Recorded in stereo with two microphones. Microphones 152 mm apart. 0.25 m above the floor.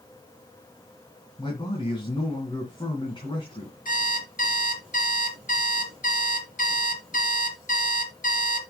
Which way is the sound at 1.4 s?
30° left (ahead or behind).